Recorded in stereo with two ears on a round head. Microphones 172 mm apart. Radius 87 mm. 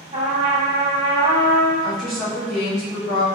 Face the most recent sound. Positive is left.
turn(degrees=0)  # may be behind; listen again after turning